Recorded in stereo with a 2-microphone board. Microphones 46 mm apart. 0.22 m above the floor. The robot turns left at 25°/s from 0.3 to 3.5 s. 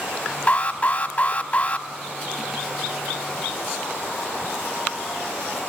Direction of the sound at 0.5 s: 25° left (ahead or behind).